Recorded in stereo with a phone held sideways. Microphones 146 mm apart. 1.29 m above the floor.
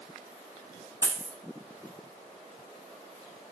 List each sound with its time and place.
1.0 s a dropped coin: 20° right (ahead or behind), 0.7 m